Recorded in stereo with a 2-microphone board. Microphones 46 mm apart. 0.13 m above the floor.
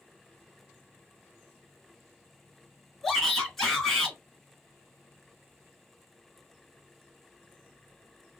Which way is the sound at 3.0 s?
10° left (ahead or behind).